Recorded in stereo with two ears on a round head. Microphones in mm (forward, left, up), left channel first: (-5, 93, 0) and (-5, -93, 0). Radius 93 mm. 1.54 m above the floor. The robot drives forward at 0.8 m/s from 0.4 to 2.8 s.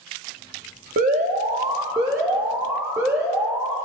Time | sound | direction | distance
1.0 | an alarm | 40° right (ahead or behind) | 0.9 m